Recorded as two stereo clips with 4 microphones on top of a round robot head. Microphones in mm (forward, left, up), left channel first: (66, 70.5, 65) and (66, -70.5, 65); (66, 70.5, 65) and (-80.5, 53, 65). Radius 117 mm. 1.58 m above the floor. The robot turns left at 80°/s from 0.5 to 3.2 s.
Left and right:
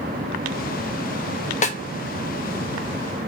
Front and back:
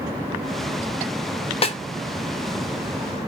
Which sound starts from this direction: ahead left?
A snare drum, at 1.6 s.